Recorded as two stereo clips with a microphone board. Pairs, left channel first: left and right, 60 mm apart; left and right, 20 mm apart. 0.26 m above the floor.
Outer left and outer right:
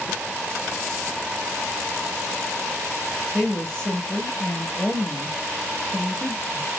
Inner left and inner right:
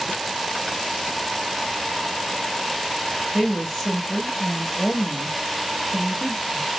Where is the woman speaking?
20° left (ahead or behind), 1.1 m.